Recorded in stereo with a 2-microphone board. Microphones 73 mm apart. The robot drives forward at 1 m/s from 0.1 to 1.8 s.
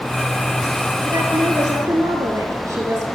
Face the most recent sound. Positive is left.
turn(degrees=-45)  # may be behind; listen again after turning